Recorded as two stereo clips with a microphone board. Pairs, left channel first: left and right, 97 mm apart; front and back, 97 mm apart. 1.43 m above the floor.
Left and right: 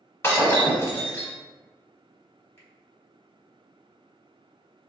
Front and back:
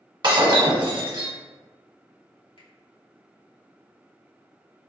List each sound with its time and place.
0.2 s breaking glass: 150° left, 0.9 m
2.6 s a finger snap: 25° left, 1.3 m